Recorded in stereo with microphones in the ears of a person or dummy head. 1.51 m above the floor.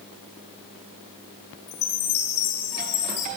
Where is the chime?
75° left (ahead or behind), 2.5 m.